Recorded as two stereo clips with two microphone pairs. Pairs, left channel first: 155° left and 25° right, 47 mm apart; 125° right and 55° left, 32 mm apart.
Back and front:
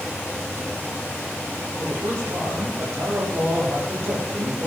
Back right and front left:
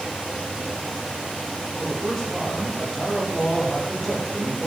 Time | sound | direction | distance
1.8 | a man speaking | 45° right | 9.5 m